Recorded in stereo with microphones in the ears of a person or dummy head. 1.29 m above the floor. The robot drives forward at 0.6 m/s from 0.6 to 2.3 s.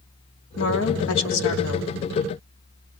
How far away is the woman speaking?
About 3.5 m.